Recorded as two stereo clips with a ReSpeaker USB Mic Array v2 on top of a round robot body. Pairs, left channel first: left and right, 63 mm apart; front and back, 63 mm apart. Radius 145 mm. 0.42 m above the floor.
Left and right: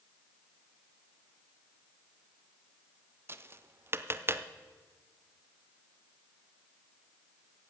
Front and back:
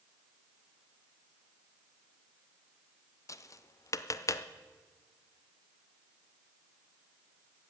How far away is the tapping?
About 0.6 m.